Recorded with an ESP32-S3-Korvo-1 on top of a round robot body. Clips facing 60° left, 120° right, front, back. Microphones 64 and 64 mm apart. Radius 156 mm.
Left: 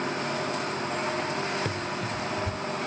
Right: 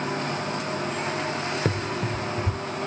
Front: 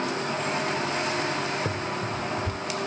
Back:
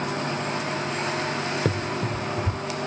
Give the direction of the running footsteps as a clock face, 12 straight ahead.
6 o'clock.